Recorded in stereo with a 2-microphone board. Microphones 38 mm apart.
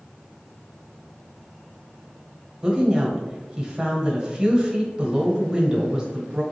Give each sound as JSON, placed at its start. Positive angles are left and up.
{"t": 2.6, "sound": "a woman speaking", "side_deg": -10, "distance_m": 1.2}